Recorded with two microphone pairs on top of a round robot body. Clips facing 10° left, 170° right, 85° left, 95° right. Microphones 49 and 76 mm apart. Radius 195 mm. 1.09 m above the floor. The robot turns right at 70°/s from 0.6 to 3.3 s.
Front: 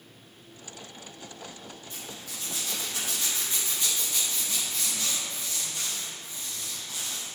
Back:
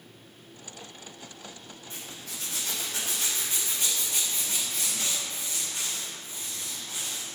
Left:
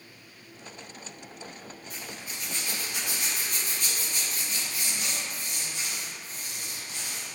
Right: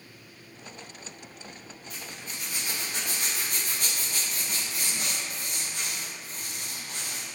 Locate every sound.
1.9 s a zipper: 135° left, 3.5 m; by 7.3 s 125° right, 3.5 m